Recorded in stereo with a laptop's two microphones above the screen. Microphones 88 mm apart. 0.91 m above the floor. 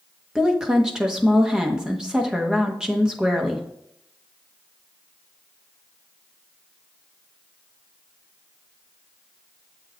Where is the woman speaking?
10° right (ahead or behind), 1.1 m.